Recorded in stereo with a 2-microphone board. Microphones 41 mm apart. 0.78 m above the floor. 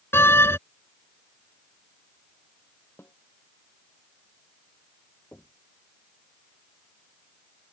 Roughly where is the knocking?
Left.